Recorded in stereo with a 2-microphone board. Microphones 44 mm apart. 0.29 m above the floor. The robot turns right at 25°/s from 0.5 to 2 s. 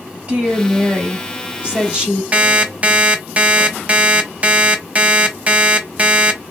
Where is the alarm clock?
30° right (ahead or behind), 0.6 m.